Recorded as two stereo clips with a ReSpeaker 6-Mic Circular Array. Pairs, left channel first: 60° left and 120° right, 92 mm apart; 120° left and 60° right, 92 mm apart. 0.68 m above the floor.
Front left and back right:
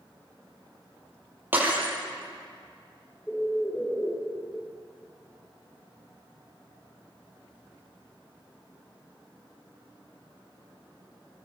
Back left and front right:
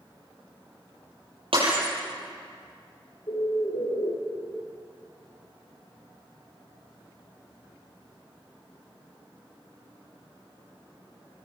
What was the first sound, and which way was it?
Breaking glass, 50° right.